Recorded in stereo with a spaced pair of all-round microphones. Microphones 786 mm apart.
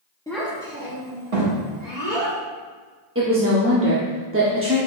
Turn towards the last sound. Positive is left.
turn(degrees=-20)  # may be behind; listen again after turning